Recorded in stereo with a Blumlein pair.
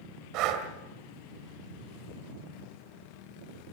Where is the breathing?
40° right, 1.9 m.